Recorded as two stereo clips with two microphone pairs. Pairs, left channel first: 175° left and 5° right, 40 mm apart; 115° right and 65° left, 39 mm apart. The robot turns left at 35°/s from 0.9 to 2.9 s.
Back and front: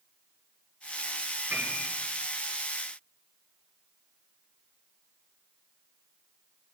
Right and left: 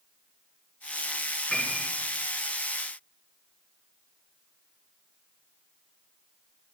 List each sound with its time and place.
1.5 s a piano: 35° right, 9 m; by 1.9 s 45° right, 9 m